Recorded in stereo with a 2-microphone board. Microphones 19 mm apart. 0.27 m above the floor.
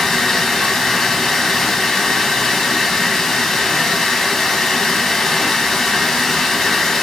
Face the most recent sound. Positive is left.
turn(degrees=30)  # may be behind; listen again after turning